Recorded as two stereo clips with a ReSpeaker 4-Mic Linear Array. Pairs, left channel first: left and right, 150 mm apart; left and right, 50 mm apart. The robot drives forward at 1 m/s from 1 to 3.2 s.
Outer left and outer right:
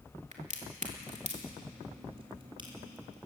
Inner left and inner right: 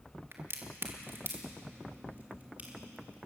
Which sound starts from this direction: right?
A crack, at 0.3 s.